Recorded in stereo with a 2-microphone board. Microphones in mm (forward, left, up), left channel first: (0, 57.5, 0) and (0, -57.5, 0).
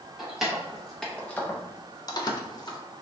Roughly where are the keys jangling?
Centre.